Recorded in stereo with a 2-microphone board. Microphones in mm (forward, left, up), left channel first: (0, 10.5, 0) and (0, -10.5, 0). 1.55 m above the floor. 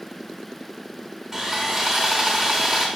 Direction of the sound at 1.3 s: 25° right (ahead or behind).